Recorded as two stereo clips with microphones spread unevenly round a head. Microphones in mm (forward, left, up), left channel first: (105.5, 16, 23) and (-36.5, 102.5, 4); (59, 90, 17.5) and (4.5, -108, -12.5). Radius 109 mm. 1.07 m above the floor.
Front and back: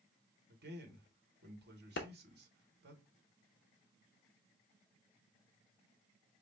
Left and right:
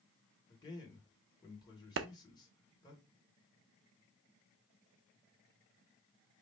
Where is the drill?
I don't hear a drill.